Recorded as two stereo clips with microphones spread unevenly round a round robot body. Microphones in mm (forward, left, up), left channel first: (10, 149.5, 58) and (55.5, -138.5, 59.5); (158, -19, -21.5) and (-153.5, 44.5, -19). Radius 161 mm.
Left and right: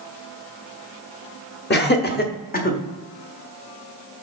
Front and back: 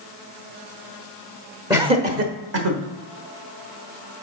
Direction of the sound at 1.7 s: 95° left.